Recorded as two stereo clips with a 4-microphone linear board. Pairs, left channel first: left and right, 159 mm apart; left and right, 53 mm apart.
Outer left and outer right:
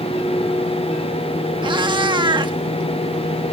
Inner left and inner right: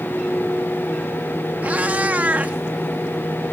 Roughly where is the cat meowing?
Right.